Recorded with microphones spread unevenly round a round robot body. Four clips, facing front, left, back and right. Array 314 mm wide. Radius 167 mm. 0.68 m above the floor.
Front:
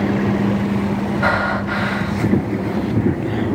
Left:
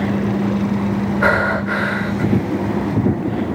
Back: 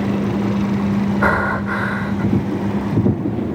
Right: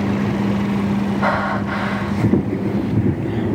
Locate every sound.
1.2 s breathing: 165° left, 1.0 m